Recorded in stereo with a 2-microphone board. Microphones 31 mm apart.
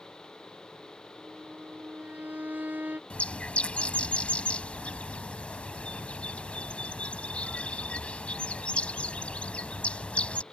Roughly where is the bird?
Left.